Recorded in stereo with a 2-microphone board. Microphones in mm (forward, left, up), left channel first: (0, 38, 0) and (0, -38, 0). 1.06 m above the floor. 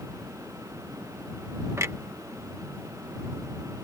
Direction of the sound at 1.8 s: 40° right (ahead or behind).